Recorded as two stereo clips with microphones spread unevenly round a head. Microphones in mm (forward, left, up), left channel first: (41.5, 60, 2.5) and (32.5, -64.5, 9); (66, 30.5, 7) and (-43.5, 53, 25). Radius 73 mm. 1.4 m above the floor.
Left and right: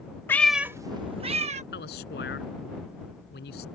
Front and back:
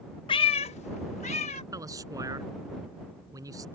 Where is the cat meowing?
20° left; by 1.6 s 70° right.